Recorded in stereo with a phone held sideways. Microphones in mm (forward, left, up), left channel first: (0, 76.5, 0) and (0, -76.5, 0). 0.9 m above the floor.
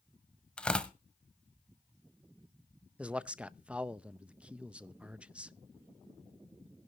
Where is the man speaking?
10° right (ahead or behind), 0.5 m.